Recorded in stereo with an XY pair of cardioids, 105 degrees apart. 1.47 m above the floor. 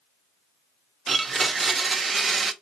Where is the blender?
40° right, 0.6 m.